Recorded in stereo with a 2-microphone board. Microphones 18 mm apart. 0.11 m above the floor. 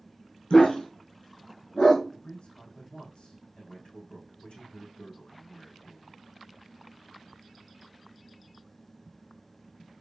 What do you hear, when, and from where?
0.5 s a dog barking: 80° left, 2.5 m
2.1 s a man speaking: 70° left (ahead or behind), 5.5 m